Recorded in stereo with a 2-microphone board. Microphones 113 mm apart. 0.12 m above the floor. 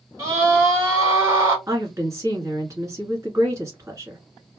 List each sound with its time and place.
0.2 s a scream: 25° right (ahead or behind), 1.6 m
1.7 s a woman speaking: 25° right (ahead or behind), 1.4 m